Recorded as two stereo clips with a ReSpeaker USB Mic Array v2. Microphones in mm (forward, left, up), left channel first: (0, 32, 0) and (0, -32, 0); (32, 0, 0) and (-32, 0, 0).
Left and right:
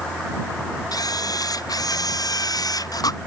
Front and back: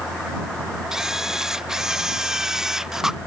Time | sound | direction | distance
0.9 | a camera shutter | 100° left | ?